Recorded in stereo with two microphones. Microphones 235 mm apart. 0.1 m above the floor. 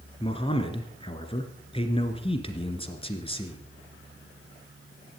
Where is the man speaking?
25° left (ahead or behind), 1.6 m.